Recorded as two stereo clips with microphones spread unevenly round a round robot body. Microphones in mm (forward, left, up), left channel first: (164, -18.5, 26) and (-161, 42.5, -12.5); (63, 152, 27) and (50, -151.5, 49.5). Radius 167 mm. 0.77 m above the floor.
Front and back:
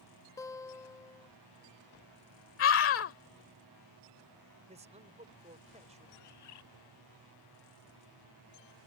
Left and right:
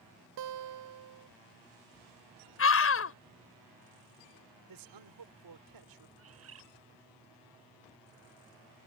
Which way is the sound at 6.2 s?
50° right.